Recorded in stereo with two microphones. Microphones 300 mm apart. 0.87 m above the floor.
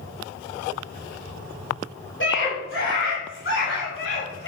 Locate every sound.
2.2 s a scream: 40° left (ahead or behind), 3 m